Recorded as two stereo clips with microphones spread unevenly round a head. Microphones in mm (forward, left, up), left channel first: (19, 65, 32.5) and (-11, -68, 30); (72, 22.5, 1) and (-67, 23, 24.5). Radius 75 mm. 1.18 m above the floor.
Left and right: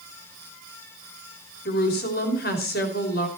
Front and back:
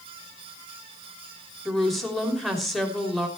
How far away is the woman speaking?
About 3.5 m.